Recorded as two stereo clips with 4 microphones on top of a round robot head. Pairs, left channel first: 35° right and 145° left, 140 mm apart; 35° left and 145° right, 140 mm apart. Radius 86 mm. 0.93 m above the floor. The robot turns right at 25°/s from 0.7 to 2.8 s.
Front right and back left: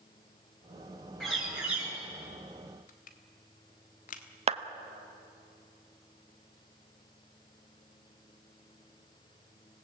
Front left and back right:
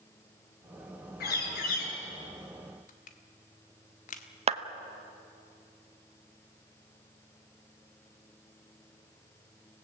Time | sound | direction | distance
1.2 | a bird | 50° left | 6.5 m
2.9 | crushing | straight ahead | 1.5 m
4.5 | a clap | straight behind | 1.0 m